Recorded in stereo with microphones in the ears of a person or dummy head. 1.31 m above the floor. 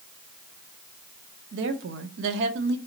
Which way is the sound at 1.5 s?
60° right (ahead or behind).